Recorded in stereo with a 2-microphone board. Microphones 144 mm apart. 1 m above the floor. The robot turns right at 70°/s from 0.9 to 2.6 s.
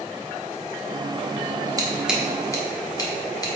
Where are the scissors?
25° right (ahead or behind), 0.8 m; by 3.5 s 25° left (ahead or behind), 0.8 m.